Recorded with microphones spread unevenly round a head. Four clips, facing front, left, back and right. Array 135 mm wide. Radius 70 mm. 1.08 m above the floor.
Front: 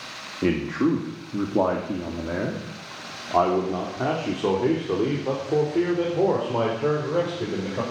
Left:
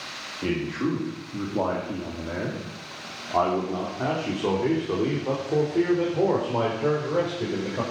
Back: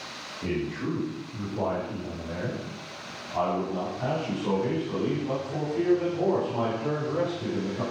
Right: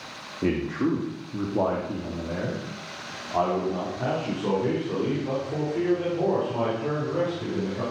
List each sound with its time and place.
0.4 s a man speaking: 15° right, 2.5 m; by 7.8 s 35° left, 5.5 m